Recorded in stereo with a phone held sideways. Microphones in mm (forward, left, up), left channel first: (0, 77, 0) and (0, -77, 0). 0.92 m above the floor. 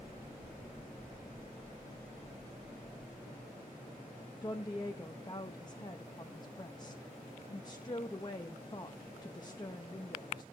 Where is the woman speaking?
30° left (ahead or behind), 0.8 m.